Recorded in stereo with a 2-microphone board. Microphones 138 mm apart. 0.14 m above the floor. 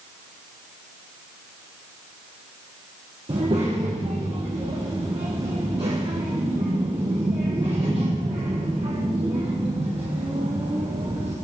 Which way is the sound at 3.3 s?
45° right (ahead or behind).